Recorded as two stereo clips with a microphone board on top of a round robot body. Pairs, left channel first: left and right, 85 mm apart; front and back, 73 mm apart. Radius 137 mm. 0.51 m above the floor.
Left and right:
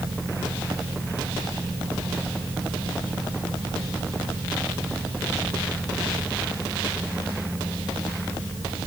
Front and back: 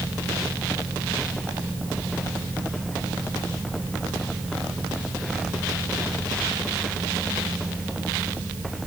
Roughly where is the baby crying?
No baby crying in this recording.